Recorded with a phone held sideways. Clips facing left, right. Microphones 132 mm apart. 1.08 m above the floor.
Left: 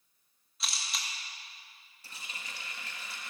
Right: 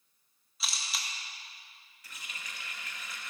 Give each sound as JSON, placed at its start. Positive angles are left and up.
{"t": 0.6, "sound": "a camera shutter", "side_deg": 0, "distance_m": 1.6}
{"t": 2.0, "sound": "a running tap", "side_deg": 30, "distance_m": 1.2}